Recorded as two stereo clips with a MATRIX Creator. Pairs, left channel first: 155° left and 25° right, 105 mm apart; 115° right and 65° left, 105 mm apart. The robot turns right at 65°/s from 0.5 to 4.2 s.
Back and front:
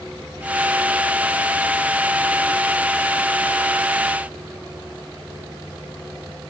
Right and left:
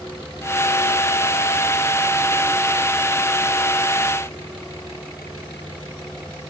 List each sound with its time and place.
Only background noise.